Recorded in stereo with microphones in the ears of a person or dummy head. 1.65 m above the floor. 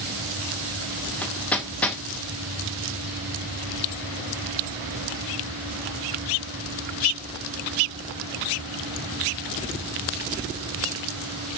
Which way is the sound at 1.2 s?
10° left (ahead or behind).